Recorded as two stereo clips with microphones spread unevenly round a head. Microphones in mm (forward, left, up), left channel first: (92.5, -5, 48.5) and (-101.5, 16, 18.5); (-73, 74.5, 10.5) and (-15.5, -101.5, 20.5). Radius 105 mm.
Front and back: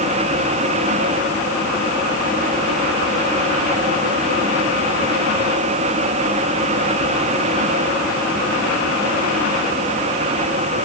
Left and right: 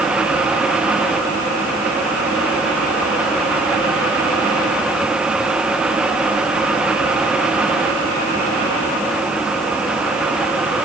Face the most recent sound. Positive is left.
No sound to turn to.